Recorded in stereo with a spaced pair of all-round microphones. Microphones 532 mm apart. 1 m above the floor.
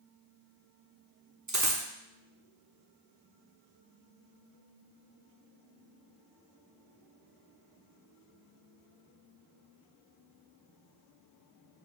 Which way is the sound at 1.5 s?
35° right (ahead or behind).